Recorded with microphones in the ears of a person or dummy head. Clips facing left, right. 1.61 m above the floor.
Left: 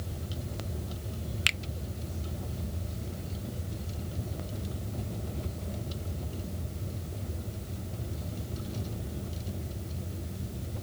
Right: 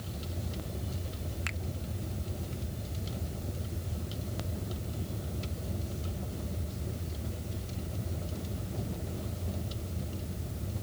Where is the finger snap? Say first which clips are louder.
Left 1 dB; 40° left (ahead or behind).